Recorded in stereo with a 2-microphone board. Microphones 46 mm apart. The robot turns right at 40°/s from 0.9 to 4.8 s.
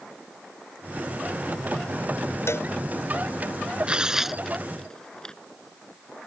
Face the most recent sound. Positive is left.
turn(degrees=15)  # may be behind; listen again after turning